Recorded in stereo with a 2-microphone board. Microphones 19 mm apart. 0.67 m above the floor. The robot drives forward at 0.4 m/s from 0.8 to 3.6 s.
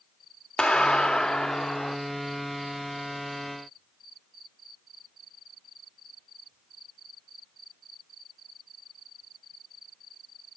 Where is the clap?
65° left (ahead or behind), 1.3 m; by 2.0 s 75° left (ahead or behind), 1.2 m.